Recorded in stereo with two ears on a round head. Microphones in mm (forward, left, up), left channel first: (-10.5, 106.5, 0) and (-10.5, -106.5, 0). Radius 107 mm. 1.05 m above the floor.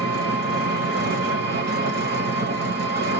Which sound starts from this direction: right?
An engine running, at 0.0 s.